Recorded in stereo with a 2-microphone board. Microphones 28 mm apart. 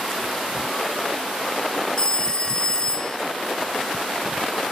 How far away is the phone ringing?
About 0.8 m.